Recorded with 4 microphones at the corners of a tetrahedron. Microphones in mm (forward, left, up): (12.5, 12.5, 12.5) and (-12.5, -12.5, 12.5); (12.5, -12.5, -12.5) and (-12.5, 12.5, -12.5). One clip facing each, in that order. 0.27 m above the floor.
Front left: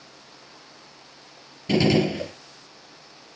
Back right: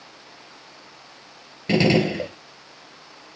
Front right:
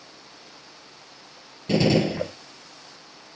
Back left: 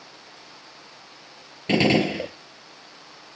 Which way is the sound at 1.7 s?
175° left.